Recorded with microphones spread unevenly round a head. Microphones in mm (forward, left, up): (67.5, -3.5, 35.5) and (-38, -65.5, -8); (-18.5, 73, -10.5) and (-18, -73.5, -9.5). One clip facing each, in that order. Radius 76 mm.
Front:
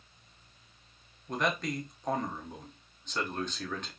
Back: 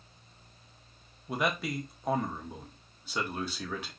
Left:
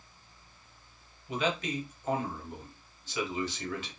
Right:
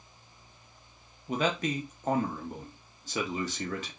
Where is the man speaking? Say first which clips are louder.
Even, right 2 dB; 55° right, 0.9 m.